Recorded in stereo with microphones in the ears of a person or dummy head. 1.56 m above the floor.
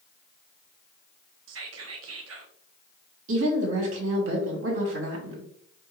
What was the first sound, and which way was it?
Whispering, 70° right (ahead or behind).